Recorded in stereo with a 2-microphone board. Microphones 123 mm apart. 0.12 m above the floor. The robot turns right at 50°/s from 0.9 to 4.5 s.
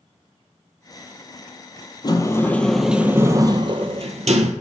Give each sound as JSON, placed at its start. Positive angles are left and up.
{"t": 2.0, "sound": "a sliding door", "azimuth_deg": 140, "distance_m": 0.6}